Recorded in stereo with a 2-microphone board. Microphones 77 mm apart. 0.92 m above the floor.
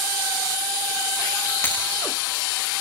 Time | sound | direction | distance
1.6 | breaking glass | 30° left (ahead or behind) | 9.5 m